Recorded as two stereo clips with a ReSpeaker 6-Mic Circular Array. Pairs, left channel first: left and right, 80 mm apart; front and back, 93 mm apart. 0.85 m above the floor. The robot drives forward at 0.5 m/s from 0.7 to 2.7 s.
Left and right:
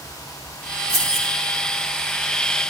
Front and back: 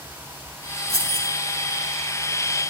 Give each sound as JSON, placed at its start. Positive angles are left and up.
{"t": 0.9, "sound": "keys jangling", "azimuth_deg": 45, "distance_m": 5.5}